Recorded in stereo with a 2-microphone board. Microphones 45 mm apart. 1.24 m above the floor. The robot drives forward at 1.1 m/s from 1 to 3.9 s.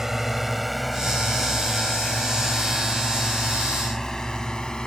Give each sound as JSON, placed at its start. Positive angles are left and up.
{"t": 0.0, "sound": "a drone", "side_deg": -10}